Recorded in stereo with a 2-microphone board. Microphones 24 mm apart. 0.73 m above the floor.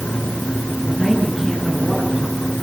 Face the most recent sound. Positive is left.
turn(degrees=-10)  # may be behind; listen again after turning